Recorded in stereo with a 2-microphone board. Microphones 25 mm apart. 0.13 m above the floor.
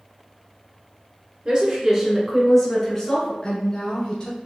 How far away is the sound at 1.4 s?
About 1.5 m.